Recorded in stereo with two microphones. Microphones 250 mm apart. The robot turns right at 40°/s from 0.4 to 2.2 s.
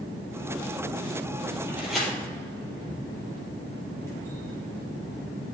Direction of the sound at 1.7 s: 10° right (ahead or behind).